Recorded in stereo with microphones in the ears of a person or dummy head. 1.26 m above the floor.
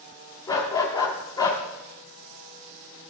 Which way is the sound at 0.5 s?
15° left (ahead or behind).